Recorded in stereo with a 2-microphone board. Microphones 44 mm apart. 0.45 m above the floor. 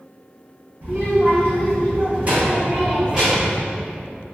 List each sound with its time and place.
0.8 s a child speaking: 60° right (ahead or behind), 1.8 m; by 3.6 s 10° right (ahead or behind), 0.8 m